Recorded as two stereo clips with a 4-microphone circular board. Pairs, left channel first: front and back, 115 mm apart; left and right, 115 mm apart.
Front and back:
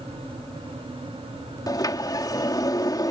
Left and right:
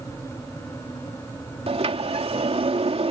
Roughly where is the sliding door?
Ahead right.